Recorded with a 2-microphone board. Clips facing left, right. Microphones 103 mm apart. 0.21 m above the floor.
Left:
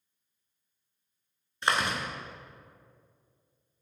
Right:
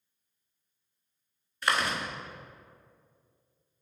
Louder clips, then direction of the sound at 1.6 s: Left 1 dB; 25° left (ahead or behind).